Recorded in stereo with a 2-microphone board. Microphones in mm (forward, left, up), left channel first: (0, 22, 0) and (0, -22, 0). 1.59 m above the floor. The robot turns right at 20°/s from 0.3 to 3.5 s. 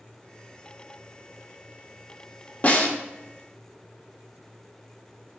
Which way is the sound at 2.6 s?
35° left (ahead or behind).